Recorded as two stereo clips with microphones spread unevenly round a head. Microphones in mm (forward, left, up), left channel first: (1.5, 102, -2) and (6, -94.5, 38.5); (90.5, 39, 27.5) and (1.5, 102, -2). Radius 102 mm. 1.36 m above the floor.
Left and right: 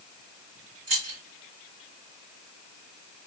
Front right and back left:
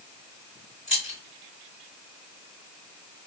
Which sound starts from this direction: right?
Keys jangling, at 0.9 s.